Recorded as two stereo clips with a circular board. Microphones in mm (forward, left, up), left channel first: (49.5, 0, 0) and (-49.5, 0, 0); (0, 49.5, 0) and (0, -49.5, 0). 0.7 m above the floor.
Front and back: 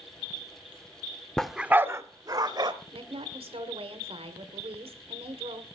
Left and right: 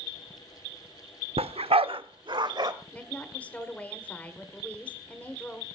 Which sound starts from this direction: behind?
A woman speaking, at 2.9 s.